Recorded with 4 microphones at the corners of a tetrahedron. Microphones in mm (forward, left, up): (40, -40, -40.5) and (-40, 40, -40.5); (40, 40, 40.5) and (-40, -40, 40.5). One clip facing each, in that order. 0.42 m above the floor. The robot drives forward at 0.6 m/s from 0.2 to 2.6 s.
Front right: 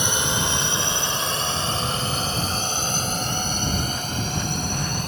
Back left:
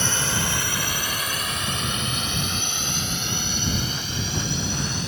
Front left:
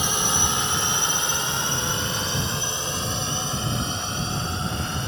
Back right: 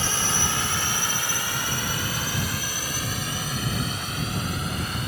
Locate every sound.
0.0 s a drone: straight ahead; by 5.1 s 15° right